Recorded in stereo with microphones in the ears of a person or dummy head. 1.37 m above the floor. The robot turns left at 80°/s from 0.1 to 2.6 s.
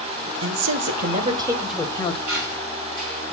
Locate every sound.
0.4 s a man speaking: 80° right, 0.9 m; by 2.2 s 140° left, 0.9 m
2.3 s a squeak: 85° right, 3.5 m; by 3.2 s 60° right (ahead or behind), 3.5 m